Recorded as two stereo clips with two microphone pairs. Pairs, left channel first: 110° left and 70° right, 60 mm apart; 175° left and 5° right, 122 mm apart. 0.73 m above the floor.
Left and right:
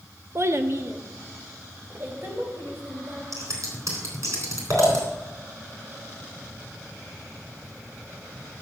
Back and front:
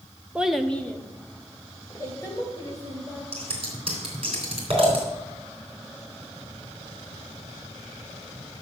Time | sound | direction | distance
0.3 | a child speaking | 80° right | 0.7 m
3.3 | scissors | 45° right | 3.5 m